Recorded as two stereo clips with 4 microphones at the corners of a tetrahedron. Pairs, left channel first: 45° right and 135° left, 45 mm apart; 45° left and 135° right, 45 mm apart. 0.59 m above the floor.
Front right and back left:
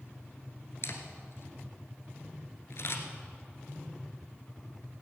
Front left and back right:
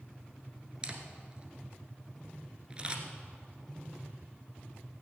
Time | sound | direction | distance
0.8 | a camera shutter | 70° right | 1.4 m